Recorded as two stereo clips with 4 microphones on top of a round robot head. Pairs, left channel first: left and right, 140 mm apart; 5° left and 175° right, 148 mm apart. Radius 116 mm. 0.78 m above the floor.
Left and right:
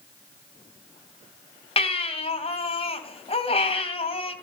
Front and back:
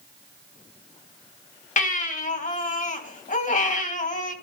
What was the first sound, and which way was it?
A baby crying, 40° left.